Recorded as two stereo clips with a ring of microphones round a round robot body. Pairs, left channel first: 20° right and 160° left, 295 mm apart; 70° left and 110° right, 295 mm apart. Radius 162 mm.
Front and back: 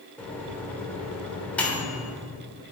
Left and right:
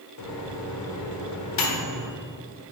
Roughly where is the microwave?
Ahead left.